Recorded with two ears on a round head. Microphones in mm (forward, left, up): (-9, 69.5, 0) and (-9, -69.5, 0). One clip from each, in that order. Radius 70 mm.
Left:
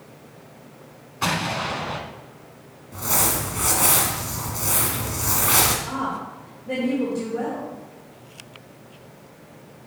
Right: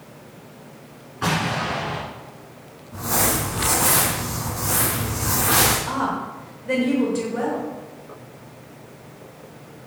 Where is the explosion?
70° left (ahead or behind), 1.6 m.